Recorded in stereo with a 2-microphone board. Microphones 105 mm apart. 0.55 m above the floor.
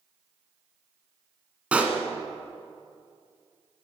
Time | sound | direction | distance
1.7 | a pop | 10° right (ahead or behind) | 1.5 m